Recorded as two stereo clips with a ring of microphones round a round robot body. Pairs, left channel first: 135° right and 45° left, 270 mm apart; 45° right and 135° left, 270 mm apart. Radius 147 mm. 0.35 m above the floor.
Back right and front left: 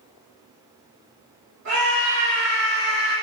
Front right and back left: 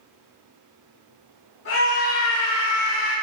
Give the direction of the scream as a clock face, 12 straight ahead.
12 o'clock.